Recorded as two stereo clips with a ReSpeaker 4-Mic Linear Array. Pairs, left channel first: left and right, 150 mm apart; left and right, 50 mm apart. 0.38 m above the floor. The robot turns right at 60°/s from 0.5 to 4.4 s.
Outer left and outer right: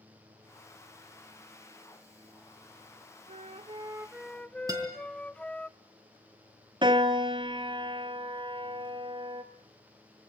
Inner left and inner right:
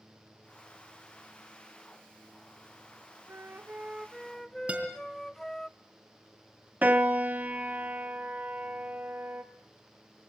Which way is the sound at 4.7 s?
25° right (ahead or behind).